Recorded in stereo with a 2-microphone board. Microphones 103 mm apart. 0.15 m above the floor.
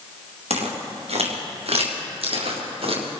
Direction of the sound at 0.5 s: 85° right.